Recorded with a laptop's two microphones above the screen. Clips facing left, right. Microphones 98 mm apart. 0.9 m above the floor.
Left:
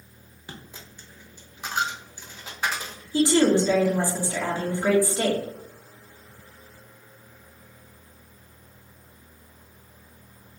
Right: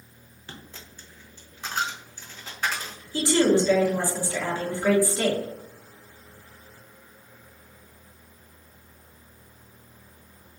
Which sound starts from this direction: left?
A woman speaking, at 3.1 s.